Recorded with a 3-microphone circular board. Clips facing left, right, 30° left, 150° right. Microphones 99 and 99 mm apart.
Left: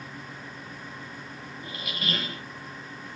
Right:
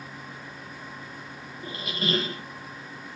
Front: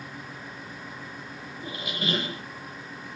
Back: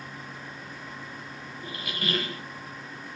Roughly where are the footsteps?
No footsteps in this recording.